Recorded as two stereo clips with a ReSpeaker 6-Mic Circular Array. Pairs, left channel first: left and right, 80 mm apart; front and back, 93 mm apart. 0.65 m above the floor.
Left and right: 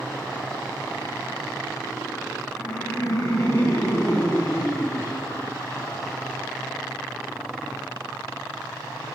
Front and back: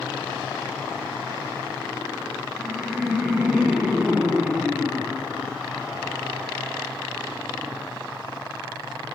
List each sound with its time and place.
2.5 s laughter: 105° left, 1.0 m